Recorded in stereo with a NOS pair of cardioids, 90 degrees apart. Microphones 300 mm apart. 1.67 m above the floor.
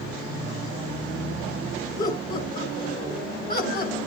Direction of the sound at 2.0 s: 25° left.